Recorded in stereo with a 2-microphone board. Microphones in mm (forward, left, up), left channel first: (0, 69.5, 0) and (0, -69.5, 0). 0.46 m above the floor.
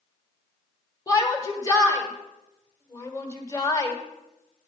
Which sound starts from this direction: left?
A shout, at 1.1 s.